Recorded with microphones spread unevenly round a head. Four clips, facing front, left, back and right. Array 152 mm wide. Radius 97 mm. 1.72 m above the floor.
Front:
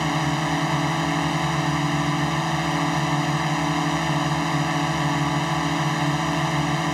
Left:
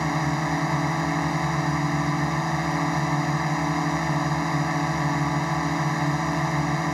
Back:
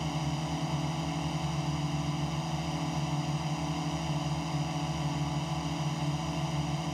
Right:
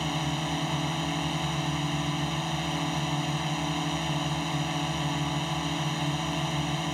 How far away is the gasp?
No gasp in this recording.